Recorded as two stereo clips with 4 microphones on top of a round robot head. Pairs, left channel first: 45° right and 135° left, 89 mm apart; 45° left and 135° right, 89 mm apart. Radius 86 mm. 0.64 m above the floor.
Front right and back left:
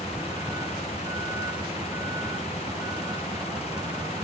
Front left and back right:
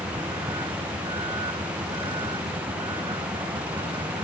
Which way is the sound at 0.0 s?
170° right.